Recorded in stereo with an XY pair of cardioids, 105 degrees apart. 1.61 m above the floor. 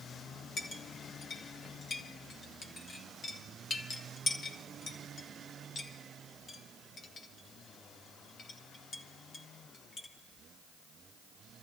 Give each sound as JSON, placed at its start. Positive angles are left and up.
{"t": 0.6, "sound": "a clink", "azimuth_deg": 45, "distance_m": 1.5}